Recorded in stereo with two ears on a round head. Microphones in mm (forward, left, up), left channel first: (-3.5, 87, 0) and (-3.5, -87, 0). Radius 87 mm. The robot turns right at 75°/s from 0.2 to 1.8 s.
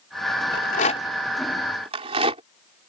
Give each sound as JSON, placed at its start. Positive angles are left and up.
{"t": 0.5, "sound": "a rattle", "side_deg": 60}